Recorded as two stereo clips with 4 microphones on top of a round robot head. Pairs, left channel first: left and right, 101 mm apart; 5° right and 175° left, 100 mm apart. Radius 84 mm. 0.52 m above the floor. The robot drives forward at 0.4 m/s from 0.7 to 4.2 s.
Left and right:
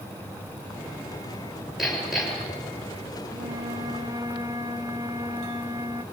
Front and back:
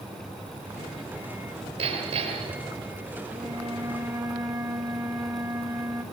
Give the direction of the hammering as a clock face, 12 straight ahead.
6 o'clock.